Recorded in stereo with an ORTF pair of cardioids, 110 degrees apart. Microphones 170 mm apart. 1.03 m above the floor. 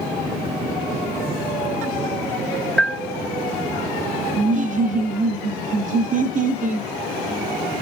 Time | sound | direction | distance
2.8 | a bell | 5° left | 0.7 m
4.4 | laughter | 50° right | 0.5 m